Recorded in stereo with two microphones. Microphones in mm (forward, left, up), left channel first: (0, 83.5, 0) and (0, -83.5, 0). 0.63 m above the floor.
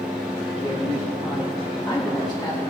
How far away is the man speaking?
About 1.1 m.